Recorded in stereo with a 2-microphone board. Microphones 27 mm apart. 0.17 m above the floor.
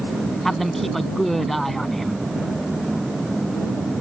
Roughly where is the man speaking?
Centre.